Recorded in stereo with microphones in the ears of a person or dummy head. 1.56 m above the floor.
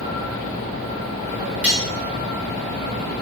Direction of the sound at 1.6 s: 10° right (ahead or behind).